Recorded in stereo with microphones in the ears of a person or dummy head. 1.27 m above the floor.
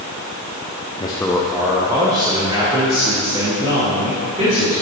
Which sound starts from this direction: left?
A man speaking, at 1.0 s.